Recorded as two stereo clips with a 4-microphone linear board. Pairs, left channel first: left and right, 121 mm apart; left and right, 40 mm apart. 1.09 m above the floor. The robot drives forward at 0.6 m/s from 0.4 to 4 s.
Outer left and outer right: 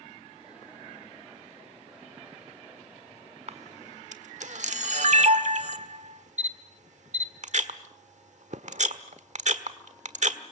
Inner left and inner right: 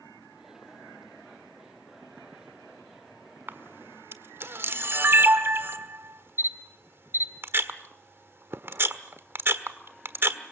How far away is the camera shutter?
About 1.5 m.